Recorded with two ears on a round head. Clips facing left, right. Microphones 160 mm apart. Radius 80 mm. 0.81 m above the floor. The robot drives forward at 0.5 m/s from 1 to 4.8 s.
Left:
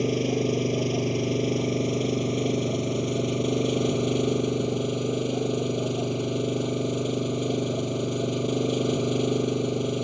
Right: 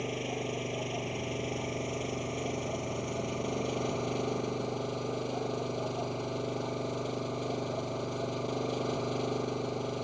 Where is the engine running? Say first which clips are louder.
Left 11 dB; 50° left (ahead or behind); by 10.0 s 40° left (ahead or behind).